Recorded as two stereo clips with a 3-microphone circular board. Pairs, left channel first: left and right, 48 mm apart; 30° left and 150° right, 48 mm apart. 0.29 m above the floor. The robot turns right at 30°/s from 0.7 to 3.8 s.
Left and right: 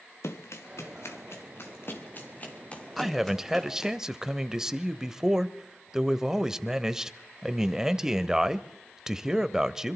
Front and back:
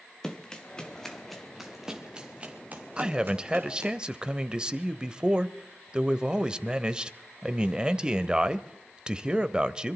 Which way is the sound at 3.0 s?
165° right.